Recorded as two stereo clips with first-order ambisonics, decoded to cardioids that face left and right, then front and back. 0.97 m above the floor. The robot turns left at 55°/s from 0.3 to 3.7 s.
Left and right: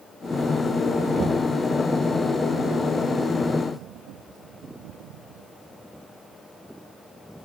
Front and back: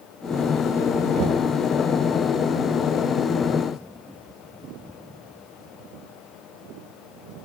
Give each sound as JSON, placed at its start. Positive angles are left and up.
{"t": 1.2, "sound": "knocking", "azimuth_deg": -150, "distance_m": 0.7}